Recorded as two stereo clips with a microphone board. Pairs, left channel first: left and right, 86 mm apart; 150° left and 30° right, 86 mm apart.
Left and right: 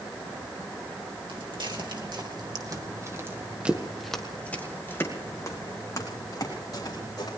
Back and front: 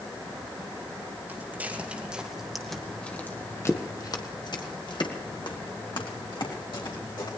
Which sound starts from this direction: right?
Footsteps, at 1.3 s.